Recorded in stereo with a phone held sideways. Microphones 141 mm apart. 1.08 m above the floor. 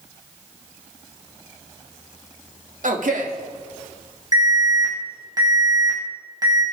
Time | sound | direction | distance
2.8 | a man speaking | 75° right (ahead or behind) | 2.5 m
4.3 | an alarm | 30° right (ahead or behind) | 6.5 m